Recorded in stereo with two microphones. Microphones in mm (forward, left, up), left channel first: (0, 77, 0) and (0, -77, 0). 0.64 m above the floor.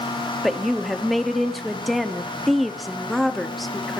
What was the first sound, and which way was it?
A woman speaking, centre (ahead or behind).